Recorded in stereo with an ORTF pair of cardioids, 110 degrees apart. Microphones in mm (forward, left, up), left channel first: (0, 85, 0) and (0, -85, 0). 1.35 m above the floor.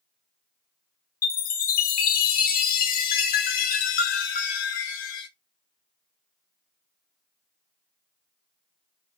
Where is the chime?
65° left, 0.5 m.